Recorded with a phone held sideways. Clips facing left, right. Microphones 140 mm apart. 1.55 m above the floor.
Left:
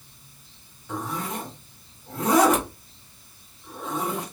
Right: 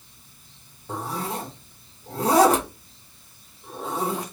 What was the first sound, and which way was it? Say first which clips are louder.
A zipper: right 1 dB; 35° right (ahead or behind).